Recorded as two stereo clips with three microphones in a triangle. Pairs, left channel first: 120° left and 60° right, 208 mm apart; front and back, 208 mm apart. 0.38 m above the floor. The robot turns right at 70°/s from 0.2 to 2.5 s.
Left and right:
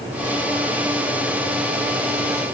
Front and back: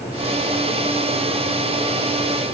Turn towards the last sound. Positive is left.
No sound to turn to.